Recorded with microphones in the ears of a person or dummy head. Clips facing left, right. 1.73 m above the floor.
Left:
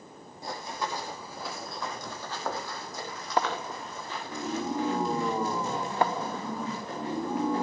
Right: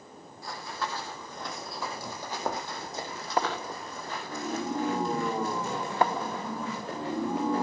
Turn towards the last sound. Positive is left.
turn(degrees=-60)  # may be behind; listen again after turning